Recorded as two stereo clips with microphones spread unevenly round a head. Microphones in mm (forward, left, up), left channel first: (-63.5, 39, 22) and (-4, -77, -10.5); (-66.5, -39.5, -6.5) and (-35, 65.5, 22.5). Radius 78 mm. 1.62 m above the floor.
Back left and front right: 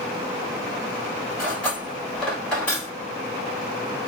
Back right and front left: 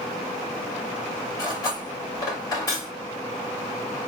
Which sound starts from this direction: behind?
Cutlery clinking, at 1.4 s.